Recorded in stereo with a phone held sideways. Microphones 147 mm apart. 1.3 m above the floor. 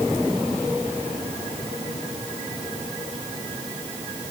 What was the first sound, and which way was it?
Only background noise.